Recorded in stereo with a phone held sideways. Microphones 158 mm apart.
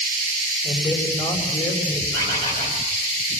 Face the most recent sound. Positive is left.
turn(degrees=25)  # may be behind; listen again after turning